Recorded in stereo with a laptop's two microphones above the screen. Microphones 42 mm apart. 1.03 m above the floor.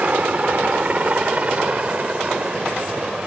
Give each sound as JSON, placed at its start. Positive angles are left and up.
{"t": 0.0, "sound": "a helicopter", "side_deg": -35}